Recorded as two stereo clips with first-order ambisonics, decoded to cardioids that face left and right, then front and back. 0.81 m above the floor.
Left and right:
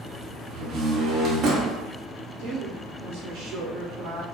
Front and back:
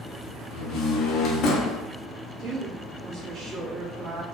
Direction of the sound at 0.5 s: 40° right.